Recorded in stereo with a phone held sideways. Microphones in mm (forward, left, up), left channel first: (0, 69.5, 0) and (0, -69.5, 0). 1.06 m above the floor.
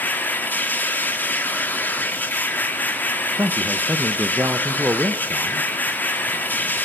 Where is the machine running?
10° left (ahead or behind), 1.8 m.